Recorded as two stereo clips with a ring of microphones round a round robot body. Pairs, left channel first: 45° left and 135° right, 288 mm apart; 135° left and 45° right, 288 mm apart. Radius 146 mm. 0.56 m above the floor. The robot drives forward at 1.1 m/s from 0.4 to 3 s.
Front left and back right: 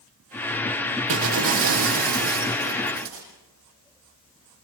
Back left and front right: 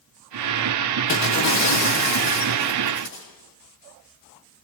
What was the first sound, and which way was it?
Breaking glass, 175° right.